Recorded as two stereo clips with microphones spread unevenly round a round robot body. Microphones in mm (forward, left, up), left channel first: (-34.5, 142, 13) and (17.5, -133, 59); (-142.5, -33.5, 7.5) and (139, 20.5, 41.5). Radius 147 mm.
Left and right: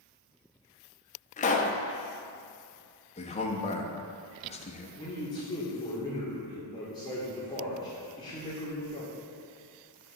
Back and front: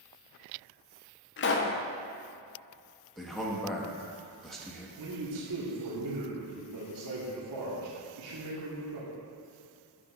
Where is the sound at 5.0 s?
30° left, 1.7 m.